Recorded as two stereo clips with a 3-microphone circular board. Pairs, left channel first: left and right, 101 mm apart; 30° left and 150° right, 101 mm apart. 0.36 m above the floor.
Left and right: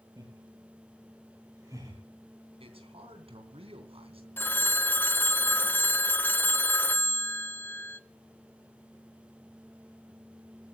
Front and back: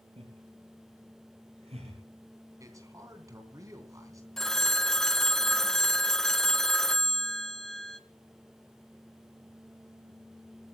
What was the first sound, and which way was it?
Laughter, 145° right.